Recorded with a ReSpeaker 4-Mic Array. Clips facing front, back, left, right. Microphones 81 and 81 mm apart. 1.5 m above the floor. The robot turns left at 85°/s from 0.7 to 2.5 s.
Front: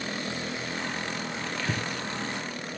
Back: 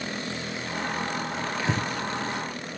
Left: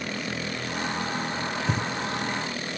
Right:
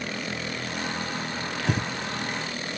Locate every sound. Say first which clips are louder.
1.6 s breathing: back 4 dB, right 3 dB; 105° right, 1.1 m; by 1.9 s 130° right, 1.1 m